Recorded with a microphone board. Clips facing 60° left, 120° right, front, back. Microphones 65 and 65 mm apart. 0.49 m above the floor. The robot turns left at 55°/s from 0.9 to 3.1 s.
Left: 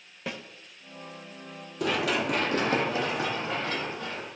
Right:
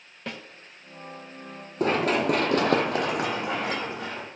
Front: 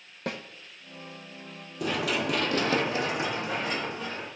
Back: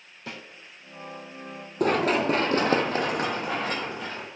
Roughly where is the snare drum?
Ahead right.